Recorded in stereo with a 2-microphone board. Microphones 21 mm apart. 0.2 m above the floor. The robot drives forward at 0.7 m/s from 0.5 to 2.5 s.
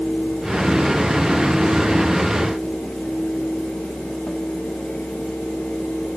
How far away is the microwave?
I don't hear a microwave.